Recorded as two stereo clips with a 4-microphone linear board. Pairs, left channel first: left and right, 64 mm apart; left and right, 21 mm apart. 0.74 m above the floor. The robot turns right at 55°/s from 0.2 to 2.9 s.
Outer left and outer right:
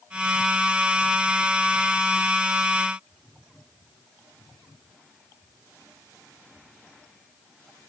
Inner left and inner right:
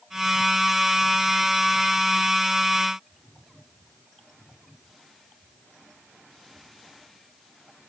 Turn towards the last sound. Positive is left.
No sound to turn to.